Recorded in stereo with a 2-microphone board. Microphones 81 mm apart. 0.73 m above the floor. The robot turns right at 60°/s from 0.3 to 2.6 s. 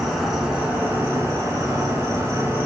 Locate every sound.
0.0 s an insect: 175° right, 0.8 m; by 2.7 s 40° right, 0.8 m